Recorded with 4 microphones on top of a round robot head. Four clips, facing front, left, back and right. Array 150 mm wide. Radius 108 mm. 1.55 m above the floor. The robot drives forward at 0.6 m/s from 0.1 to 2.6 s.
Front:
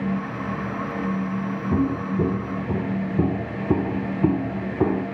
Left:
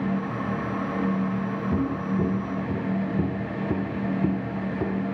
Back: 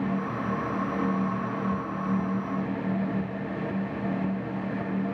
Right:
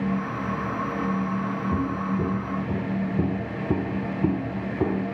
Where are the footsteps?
15° left; by 5.0 s 10° right.